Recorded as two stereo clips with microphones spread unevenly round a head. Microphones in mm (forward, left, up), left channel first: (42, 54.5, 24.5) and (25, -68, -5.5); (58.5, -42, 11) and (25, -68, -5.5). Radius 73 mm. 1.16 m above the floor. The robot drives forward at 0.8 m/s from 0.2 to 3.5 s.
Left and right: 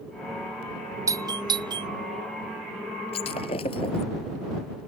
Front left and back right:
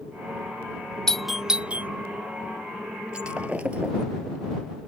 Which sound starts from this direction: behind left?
Breaking glass, at 3.1 s.